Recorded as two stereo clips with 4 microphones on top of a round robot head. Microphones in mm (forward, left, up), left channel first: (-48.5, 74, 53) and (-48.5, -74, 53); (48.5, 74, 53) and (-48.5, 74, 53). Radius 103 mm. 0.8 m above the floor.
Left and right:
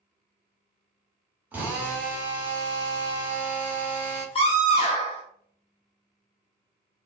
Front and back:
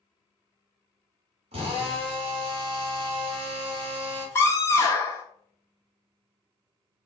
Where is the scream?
50° left, 1.5 m.